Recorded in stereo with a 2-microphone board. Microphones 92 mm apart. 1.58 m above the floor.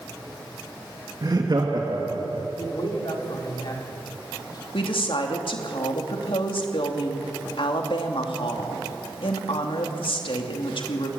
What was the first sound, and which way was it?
Laughter, 45° right (ahead or behind).